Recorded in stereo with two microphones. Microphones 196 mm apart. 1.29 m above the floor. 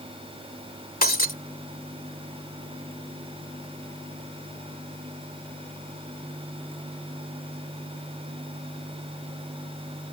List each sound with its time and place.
1.0 s breaking glass: 50° left (ahead or behind)